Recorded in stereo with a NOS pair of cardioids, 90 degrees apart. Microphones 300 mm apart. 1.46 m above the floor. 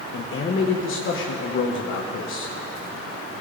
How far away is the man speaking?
About 1.0 m.